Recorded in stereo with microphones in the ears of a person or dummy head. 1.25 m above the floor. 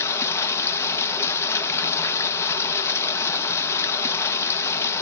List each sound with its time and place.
0.0 s running water: 20° left (ahead or behind), 0.8 m